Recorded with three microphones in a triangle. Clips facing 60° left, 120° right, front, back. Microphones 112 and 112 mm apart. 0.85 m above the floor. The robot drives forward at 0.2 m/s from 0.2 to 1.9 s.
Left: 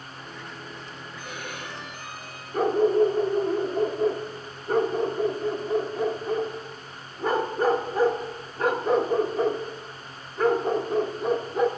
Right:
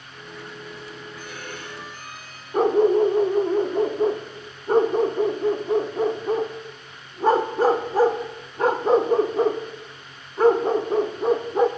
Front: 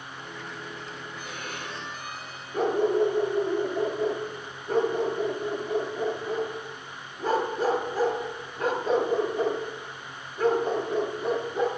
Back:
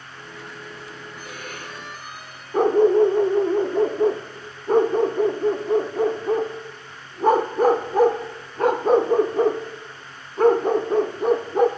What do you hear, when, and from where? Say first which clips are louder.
1.2 s a violin: left 3 dB, back 1 dB; 135° left, 4 m; by 2.4 s 140° left, 4 m
2.5 s a dog barking: right 3 dB, back 8 dB; 170° right, 0.7 m